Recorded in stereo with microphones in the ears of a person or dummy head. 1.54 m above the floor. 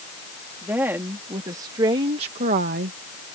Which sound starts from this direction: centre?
A woman speaking, at 0.6 s.